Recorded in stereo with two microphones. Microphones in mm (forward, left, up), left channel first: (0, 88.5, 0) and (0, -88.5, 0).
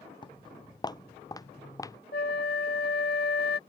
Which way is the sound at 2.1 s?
65° left (ahead or behind).